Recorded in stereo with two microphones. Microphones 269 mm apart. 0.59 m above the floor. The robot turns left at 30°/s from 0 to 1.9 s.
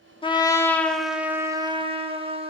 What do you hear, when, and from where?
0.2 s a trumpet: 25° left, 0.7 m; by 2.5 s 25° right, 0.7 m